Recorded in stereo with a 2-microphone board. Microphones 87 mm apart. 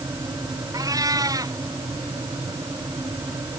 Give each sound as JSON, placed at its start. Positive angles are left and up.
{"t": 0.7, "sound": "a cat meowing", "side_deg": -45}